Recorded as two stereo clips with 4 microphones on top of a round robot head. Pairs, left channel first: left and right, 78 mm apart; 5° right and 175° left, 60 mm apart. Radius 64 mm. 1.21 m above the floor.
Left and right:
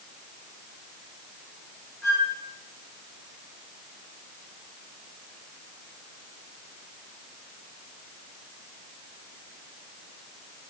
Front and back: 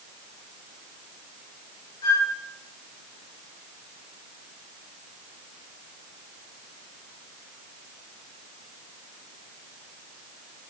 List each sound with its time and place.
2.0 s a flute: straight ahead, 1.2 m